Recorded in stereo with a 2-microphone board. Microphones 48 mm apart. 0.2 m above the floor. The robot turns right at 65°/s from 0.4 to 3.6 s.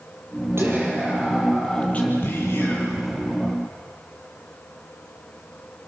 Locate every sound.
0.6 s whispering: 60° right, 7 m; by 3.5 s 130° left, 7 m